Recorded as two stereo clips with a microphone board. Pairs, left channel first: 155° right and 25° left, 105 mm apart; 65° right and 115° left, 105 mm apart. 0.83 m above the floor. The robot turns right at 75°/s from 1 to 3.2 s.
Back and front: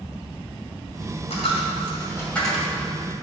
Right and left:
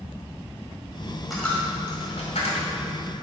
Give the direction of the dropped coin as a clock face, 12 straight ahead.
5 o'clock.